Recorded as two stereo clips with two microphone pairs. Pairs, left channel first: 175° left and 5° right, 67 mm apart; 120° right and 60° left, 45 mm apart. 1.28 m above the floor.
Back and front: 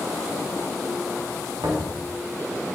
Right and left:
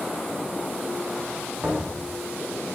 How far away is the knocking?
About 2.5 m.